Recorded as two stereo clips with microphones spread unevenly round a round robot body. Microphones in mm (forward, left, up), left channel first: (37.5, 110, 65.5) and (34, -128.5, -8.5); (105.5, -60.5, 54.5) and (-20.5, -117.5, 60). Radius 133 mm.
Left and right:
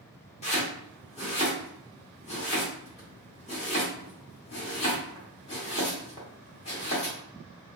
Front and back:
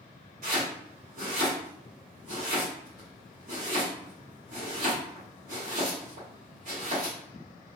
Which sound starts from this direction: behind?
Chopping, at 0.4 s.